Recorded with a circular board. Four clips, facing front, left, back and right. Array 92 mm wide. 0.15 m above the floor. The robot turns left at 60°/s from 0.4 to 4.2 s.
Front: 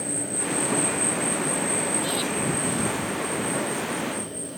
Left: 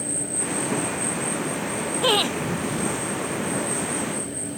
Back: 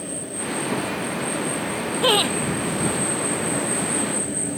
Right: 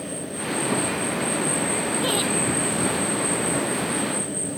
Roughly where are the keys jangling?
I don't hear keys jangling.